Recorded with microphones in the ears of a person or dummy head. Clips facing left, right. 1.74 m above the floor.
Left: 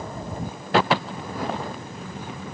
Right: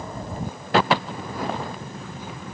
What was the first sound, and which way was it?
Only background noise.